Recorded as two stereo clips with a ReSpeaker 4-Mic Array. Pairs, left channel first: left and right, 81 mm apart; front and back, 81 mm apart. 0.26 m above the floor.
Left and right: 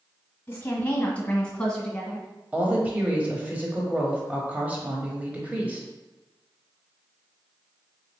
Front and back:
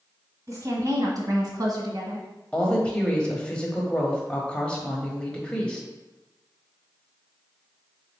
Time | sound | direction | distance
0.5 | a woman speaking | 150° left | 1.4 m
2.5 | a woman speaking | 55° right | 0.9 m